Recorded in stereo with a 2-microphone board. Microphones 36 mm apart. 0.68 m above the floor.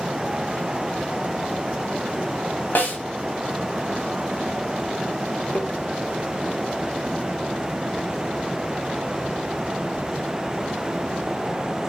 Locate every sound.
2.8 s a snare drum: 55° left (ahead or behind), 2 m
5.5 s tapping: 55° left (ahead or behind), 1.5 m